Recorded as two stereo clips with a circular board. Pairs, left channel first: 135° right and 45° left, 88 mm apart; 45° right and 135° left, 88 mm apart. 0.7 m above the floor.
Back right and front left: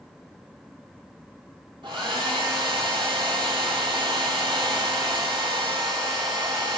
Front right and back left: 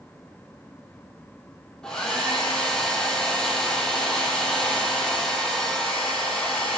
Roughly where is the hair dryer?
Ahead left.